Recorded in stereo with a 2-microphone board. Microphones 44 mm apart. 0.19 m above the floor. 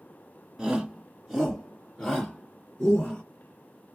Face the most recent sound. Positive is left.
turn(degrees=35)  # may be behind; listen again after turning